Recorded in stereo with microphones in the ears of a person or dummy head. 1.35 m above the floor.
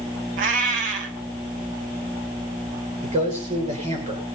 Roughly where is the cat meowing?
Right.